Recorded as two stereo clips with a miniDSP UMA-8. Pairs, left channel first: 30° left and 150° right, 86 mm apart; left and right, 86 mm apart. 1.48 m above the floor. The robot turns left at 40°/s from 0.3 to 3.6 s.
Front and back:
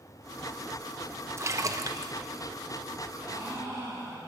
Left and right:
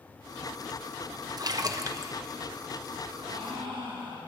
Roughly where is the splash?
Right.